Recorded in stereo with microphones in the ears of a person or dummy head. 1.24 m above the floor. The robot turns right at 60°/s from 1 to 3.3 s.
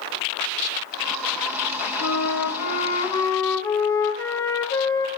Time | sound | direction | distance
2.0 | a flute | 85° left | 1.2 m